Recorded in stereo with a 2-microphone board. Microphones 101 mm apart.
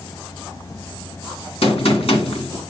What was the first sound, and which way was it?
A gunshot, 75° left (ahead or behind).